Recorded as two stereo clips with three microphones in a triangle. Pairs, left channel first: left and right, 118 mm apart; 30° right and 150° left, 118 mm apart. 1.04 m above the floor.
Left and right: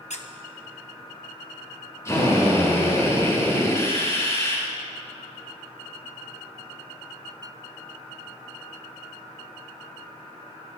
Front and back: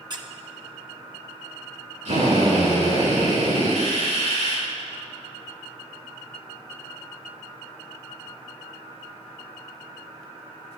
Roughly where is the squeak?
Left.